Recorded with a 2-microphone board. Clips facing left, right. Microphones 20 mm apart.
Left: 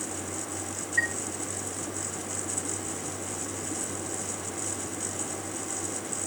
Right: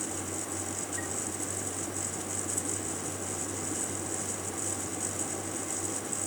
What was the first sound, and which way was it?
A chime, 70° left (ahead or behind).